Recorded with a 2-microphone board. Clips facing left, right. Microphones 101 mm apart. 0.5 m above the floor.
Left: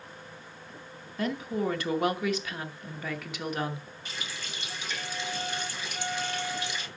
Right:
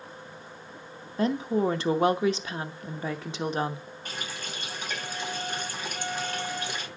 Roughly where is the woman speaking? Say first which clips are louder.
Right 5 dB; right.